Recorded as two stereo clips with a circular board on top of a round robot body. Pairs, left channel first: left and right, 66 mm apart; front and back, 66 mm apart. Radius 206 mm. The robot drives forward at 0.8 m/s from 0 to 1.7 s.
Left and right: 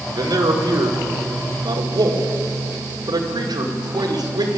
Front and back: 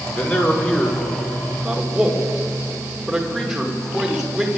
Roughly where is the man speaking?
Ahead right.